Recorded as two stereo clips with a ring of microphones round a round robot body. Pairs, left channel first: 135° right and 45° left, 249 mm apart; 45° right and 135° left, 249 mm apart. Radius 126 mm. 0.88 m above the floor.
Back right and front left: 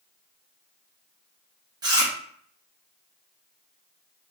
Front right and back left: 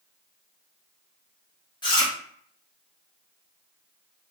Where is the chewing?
5° right, 1.0 m.